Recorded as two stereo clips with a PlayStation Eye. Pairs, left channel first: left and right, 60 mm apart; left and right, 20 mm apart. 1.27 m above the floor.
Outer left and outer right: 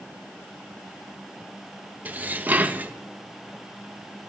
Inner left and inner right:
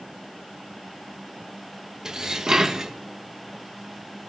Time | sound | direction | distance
2.0 | dishes clattering | 25° right (ahead or behind) | 0.8 m